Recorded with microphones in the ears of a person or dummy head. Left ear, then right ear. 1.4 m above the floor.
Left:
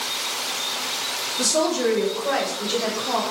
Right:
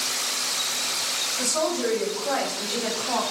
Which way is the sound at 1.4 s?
55° left (ahead or behind).